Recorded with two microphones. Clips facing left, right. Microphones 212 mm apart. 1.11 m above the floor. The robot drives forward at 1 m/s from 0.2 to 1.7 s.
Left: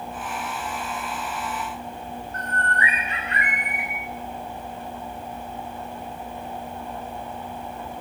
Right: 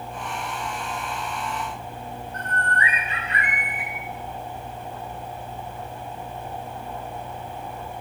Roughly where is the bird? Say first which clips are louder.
Even; left.